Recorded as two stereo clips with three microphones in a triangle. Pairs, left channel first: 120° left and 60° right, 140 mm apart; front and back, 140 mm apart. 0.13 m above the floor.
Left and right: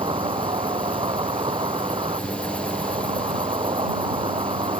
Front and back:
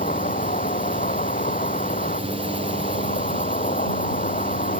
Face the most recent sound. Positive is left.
turn(degrees=-10)